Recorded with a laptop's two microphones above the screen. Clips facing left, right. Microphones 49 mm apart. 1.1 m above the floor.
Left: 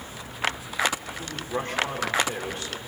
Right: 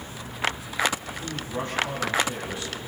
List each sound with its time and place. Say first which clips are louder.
1.2 s a man speaking: left 3 dB; 50° left (ahead or behind), 3.5 m